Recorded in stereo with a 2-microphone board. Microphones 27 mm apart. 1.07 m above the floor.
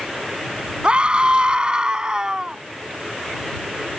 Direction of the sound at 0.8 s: 35° right (ahead or behind).